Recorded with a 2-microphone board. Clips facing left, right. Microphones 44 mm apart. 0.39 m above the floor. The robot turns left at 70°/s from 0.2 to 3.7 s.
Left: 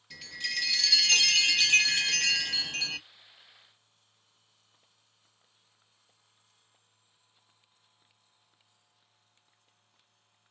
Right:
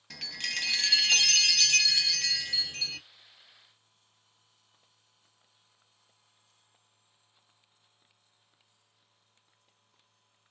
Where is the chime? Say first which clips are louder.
Even; 100° right, 0.7 m; by 3.1 s 55° left, 0.7 m.